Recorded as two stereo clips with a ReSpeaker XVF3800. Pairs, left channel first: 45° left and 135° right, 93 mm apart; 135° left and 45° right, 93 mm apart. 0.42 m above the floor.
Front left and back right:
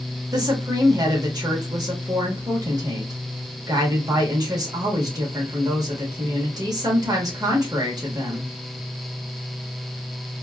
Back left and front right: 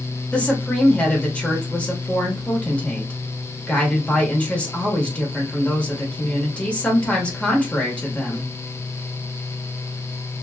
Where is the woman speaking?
155° right, 1.0 m.